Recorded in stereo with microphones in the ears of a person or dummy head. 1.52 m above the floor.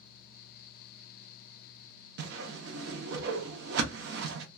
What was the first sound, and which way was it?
A whoosh, 75° right (ahead or behind).